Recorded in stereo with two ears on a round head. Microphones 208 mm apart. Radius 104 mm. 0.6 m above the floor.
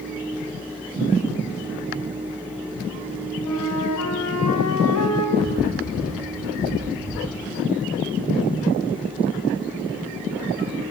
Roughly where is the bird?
Left.